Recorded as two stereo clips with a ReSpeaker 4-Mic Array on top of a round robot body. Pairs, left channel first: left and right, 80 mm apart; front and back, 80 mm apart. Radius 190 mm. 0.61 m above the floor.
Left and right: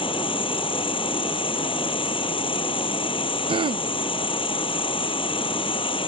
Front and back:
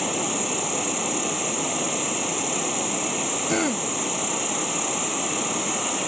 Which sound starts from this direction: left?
An insect, at 0.0 s.